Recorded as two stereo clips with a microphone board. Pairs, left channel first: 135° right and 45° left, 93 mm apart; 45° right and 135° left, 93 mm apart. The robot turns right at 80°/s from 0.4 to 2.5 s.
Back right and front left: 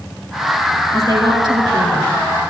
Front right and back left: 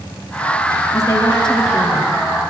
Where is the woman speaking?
5° right, 2.5 m; by 2.1 s 90° left, 2.5 m.